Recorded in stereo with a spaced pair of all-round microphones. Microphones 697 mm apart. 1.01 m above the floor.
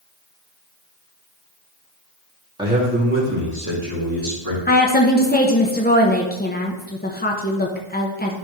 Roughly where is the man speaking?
Centre.